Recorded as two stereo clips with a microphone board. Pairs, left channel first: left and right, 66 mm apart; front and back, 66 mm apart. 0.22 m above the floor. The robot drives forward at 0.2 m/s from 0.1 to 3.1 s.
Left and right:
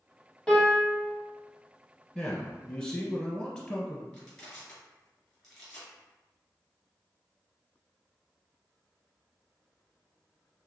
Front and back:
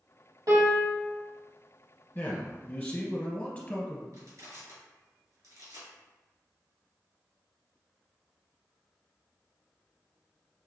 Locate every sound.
0.5 s a piano: 170° left, 1.7 m
2.1 s a man speaking: 25° left, 1.2 m; by 4.0 s 30° left, 1.1 m
4.1 s crushing: 170° left, 2.0 m